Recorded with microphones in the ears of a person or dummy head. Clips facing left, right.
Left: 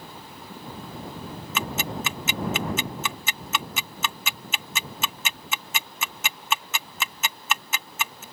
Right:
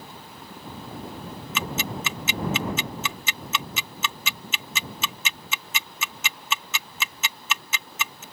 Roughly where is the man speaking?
I don't hear a man speaking.